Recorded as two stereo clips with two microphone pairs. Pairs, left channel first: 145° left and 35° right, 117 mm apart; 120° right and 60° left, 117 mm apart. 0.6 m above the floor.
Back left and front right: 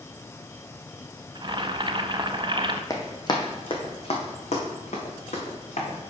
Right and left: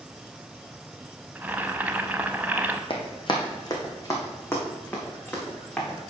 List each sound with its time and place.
1.4 s boiling: 10° right, 0.5 m
2.9 s running footsteps: 155° right, 1.4 m; by 6.0 s 160° left, 3 m